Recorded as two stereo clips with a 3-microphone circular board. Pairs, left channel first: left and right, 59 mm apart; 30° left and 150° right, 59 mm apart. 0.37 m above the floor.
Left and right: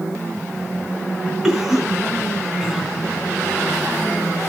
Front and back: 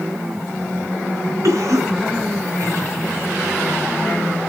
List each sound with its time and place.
1.4 s a cough: 170° right, 3 m